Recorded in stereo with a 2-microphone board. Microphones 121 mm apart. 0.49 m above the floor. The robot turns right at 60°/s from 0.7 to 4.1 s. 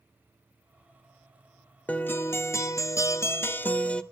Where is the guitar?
15° left (ahead or behind), 0.6 m; by 4.0 s 10° left (ahead or behind), 0.6 m.